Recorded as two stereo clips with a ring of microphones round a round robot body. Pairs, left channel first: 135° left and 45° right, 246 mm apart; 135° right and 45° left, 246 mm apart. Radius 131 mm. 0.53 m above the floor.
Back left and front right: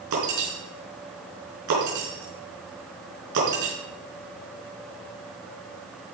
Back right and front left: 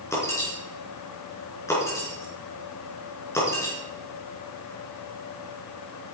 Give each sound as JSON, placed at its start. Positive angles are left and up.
{"t": 0.1, "sound": "breaking glass", "azimuth_deg": -55, "distance_m": 4.5}